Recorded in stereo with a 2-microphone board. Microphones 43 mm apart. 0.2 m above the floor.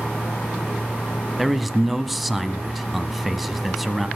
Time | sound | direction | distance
1.4 | a man speaking | centre (ahead or behind) | 1.2 m